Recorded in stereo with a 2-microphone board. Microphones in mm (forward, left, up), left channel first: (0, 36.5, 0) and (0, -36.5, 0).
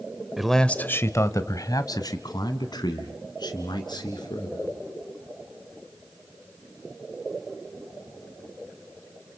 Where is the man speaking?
5° right (ahead or behind), 0.9 m; by 4.7 s 75° left (ahead or behind), 4.5 m.